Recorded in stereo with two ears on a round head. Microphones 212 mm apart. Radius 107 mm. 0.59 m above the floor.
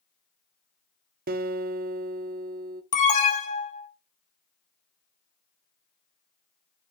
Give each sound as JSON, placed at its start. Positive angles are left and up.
{"t": 1.3, "sound": "a guitar", "side_deg": -40, "distance_m": 0.6}
{"t": 2.9, "sound": "an alarm", "side_deg": 35, "distance_m": 1.4}